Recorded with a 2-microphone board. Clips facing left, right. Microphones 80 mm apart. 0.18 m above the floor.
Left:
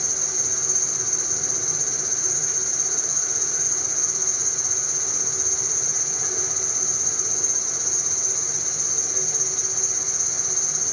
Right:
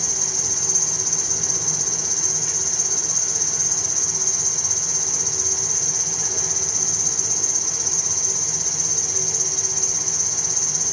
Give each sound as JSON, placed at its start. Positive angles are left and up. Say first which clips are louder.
{"t": 0.0, "sound": "an insect", "louder": "right 2 dB", "side_deg": -75, "distance_m": 1.5}